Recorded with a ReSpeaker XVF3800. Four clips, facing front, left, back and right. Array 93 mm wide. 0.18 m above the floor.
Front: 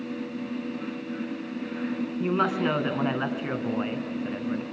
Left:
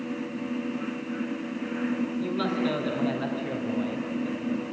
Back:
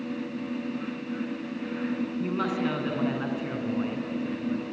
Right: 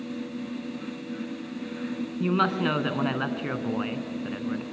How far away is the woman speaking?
About 2 m.